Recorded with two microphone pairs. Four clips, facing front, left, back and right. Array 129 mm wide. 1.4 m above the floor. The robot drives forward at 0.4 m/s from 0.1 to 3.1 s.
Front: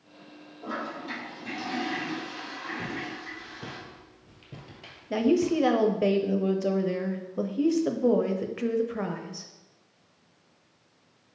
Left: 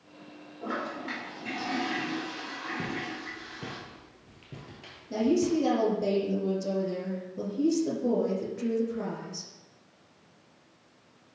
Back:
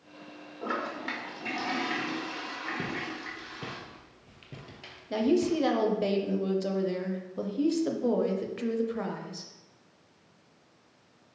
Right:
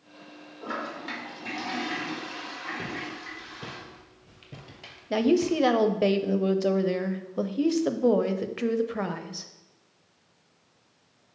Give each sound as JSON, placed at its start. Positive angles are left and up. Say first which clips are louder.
{"t": 0.6, "sound": "a toilet flushing", "louder": "even, back 1 dB", "azimuth_deg": -175, "distance_m": 1.4}
{"t": 2.8, "sound": "footsteps", "louder": "left 1 dB, even", "azimuth_deg": -170, "distance_m": 1.8}
{"t": 5.1, "sound": "a woman speaking", "louder": "right 2 dB, front 2 dB", "azimuth_deg": -80, "distance_m": 0.5}